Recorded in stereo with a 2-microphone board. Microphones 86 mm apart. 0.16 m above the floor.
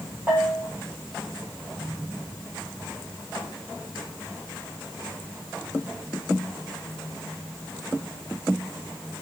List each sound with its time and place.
0.3 s a bell: 25° right (ahead or behind), 3 m